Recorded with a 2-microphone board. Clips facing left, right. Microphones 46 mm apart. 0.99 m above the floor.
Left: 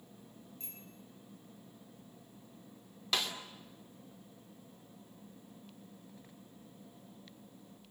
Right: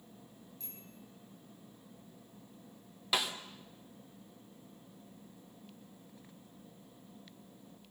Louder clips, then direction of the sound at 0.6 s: Even; 40° left (ahead or behind).